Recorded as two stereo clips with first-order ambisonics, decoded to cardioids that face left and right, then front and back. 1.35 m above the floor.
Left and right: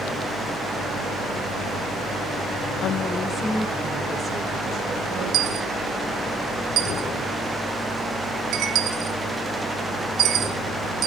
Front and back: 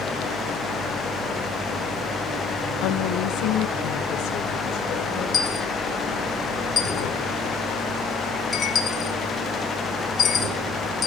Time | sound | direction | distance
2.8 | a woman speaking | 35° left | 0.8 m
5.3 | a dropped coin | 60° right | 1.2 m